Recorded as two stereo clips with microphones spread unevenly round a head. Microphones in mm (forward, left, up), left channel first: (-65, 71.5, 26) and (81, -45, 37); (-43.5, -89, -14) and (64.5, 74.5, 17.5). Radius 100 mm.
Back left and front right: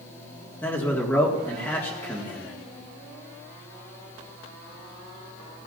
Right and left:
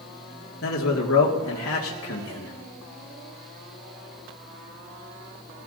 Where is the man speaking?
140° right, 1.9 m.